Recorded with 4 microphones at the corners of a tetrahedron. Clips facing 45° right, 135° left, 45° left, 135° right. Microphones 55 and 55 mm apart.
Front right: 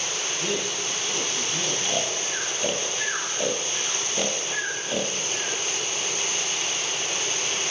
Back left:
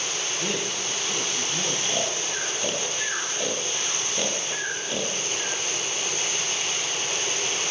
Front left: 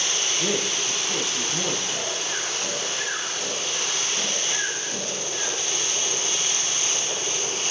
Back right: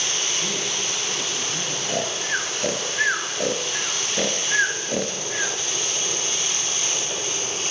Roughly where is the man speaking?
Ahead left.